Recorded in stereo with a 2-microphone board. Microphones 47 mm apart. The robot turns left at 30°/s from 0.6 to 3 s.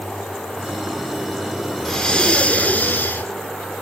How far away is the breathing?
About 2.5 m.